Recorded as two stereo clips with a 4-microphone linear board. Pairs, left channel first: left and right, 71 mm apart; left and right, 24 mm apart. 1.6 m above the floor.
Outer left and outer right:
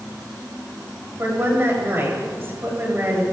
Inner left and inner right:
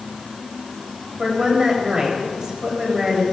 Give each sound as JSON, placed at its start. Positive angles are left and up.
{"t": 1.2, "sound": "a woman speaking", "side_deg": -35, "distance_m": 8.5}